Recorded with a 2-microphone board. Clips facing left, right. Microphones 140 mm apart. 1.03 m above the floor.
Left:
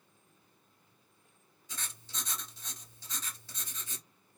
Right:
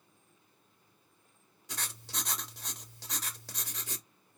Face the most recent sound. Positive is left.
turn(degrees=-80)